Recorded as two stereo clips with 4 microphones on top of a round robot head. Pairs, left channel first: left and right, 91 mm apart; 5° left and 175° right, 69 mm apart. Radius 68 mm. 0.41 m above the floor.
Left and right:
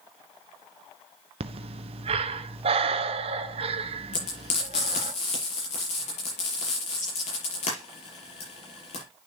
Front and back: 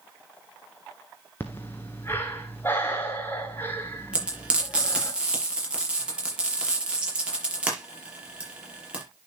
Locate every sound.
1.4 s breathing: 65° right, 0.9 m
4.1 s frying: 110° left, 6 m